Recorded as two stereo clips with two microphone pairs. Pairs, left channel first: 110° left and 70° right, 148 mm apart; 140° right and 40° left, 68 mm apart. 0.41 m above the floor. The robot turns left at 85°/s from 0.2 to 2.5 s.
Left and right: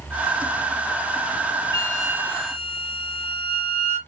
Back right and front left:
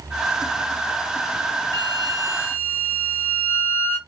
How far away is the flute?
About 1.2 m.